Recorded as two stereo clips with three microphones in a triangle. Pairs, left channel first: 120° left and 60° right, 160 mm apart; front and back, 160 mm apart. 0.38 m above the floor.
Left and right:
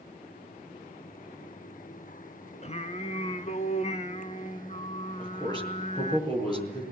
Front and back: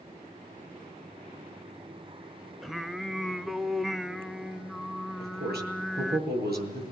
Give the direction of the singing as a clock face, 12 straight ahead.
9 o'clock.